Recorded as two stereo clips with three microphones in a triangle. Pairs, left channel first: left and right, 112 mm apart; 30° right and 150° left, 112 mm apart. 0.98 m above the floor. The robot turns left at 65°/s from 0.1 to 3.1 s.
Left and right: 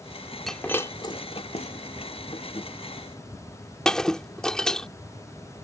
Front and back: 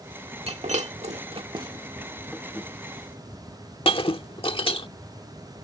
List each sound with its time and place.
0.5 s breaking glass: straight behind; by 4.9 s 5° left